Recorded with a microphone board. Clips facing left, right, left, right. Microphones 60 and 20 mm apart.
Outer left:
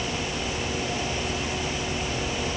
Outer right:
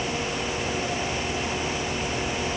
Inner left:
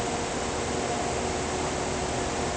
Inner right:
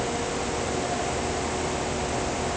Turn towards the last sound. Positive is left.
No sound to turn to.